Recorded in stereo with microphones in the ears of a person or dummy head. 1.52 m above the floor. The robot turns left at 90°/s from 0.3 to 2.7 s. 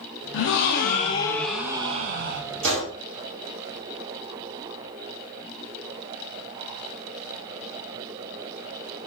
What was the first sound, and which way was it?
A gasp, 105° left.